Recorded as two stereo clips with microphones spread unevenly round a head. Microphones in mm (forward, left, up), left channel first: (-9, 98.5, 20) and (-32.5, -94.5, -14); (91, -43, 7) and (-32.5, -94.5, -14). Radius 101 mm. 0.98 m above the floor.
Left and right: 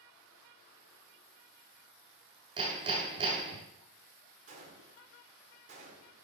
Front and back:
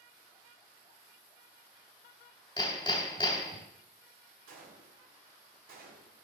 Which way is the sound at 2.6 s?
25° right.